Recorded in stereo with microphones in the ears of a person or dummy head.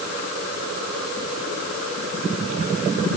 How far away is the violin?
No violin in this recording.